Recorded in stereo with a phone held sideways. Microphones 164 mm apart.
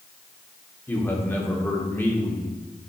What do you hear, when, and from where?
0.9 s a man speaking: 10° left (ahead or behind), 1.4 m